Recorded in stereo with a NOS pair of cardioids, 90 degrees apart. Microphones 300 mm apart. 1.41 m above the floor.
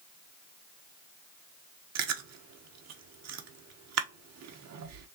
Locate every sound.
1.9 s chewing: 60° right, 1.0 m